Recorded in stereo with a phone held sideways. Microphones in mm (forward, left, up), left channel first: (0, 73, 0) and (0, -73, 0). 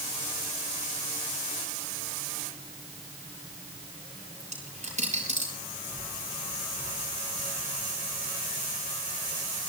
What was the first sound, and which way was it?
A dropped coin, 55° right (ahead or behind).